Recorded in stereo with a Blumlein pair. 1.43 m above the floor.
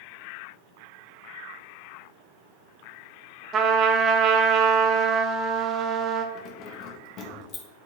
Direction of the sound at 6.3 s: 35° left.